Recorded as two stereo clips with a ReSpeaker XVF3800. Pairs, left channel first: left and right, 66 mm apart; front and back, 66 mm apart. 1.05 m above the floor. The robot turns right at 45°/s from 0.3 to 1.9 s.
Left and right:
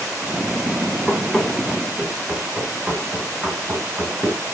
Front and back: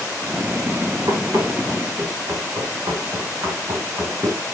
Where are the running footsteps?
155° left, 5 m; by 4.4 s 150° right, 5.5 m.